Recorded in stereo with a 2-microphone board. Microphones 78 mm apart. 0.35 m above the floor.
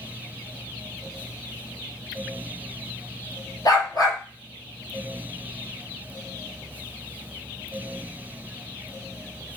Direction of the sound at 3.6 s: 60° left (ahead or behind).